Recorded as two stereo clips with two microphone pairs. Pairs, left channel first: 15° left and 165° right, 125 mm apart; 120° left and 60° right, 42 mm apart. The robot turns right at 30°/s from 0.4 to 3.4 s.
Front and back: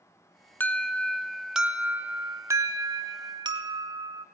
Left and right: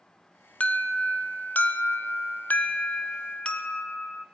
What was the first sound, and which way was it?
An alarm, 80° left.